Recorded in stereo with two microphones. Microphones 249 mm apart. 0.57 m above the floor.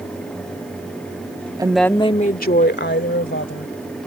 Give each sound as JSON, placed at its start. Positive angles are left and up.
{"t": 1.6, "sound": "a woman speaking", "side_deg": -15}